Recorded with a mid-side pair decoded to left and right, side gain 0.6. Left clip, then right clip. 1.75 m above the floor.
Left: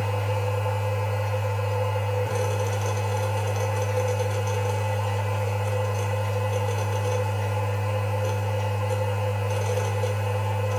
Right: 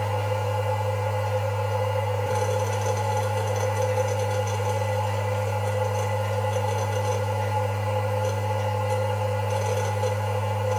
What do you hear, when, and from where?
0.0 s a machine running: straight ahead, 1.1 m